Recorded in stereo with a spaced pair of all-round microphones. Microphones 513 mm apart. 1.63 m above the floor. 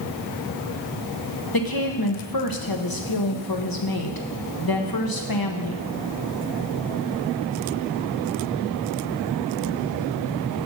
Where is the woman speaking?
45° left (ahead or behind), 1.3 m.